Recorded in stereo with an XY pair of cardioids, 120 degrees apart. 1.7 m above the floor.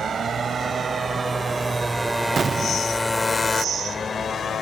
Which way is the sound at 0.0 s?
40° right.